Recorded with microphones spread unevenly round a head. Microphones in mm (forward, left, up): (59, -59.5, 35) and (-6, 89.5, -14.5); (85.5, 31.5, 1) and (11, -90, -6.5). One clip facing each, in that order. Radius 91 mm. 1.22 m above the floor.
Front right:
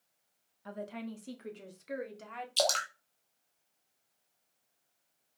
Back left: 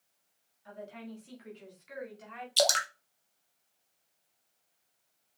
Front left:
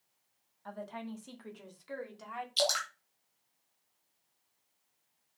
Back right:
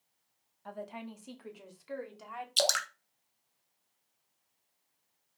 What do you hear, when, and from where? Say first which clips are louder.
0.7 s a woman speaking: front right 4 dB, even; 45° right, 1.8 m; by 2.5 s 35° right, 2.5 m
2.6 s dripping: back left 3 dB, even; 170° right, 1.0 m